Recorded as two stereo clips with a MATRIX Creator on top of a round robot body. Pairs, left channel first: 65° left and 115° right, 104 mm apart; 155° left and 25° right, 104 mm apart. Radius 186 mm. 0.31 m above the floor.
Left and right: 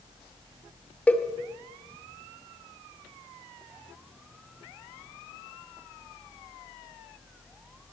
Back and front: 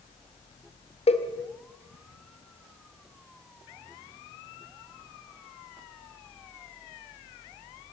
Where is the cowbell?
145° left, 2 m.